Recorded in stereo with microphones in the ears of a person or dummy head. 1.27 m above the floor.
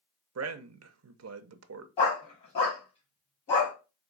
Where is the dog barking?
25° left (ahead or behind), 1.2 m.